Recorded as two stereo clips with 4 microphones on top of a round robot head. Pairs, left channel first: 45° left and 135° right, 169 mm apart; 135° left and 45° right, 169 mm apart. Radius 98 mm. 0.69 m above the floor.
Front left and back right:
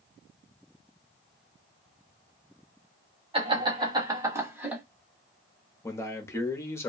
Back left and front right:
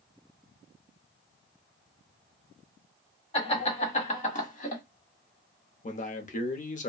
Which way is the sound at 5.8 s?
115° left.